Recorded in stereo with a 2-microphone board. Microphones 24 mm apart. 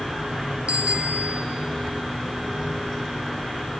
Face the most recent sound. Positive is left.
turn(degrees=-65)  # may be behind; listen again after turning